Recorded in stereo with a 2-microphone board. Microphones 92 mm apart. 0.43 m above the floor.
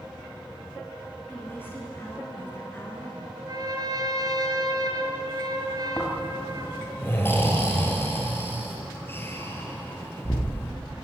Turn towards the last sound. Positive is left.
turn(degrees=25)  # may be behind; listen again after turning